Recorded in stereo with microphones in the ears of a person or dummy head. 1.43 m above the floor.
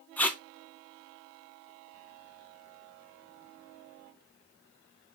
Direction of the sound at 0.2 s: 10° left (ahead or behind).